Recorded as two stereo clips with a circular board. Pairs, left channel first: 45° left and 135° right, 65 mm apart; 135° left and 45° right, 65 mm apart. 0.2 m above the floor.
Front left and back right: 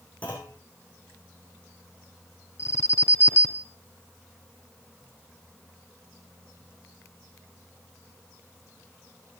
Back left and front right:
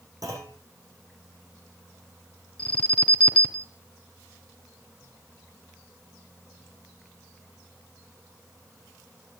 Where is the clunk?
20° right, 8.5 m.